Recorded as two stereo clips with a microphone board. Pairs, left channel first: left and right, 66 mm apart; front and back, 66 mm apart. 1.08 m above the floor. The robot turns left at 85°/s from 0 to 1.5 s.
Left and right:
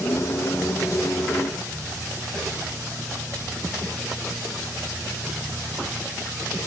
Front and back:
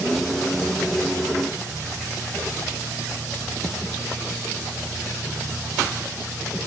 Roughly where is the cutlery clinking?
I don't hear cutlery clinking.